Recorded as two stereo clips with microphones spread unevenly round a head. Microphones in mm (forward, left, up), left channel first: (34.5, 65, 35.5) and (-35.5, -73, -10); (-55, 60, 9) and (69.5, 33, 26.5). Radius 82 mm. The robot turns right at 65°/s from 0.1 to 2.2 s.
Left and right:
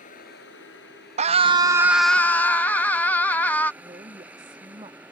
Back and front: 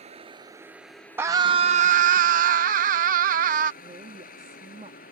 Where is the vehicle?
25° left; by 5.1 s 160° left.